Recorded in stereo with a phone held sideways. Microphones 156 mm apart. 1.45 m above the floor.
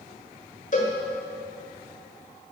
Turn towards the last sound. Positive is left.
turn(degrees=55)  # may be behind; listen again after turning